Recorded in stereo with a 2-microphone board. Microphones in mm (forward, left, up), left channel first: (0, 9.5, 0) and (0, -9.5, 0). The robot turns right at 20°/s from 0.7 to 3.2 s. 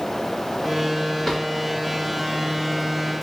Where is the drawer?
20° left (ahead or behind), 3 m; by 1.5 s 15° left (ahead or behind), 3 m.